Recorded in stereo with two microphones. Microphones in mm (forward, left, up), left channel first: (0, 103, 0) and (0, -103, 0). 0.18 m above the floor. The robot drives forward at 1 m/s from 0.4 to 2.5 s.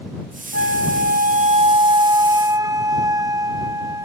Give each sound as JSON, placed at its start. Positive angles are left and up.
{"t": 0.5, "sound": "a flute", "side_deg": -70}